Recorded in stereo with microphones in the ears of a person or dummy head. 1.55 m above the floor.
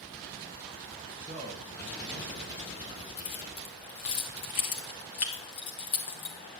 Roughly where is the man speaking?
Right.